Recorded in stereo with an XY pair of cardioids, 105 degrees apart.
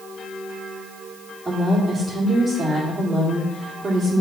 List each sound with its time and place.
1.4 s a woman speaking: 25° right, 2.5 m